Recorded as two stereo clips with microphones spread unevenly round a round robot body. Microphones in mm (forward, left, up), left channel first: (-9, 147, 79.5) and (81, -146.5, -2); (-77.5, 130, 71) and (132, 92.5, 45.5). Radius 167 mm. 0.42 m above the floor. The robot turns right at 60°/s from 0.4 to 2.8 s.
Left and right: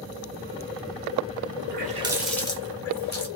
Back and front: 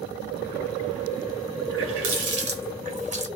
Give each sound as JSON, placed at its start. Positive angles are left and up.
{"t": 1.7, "sound": "a running tap", "azimuth_deg": -25, "distance_m": 1.1}